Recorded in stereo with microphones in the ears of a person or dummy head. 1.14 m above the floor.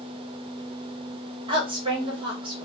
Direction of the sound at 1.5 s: 30° right (ahead or behind).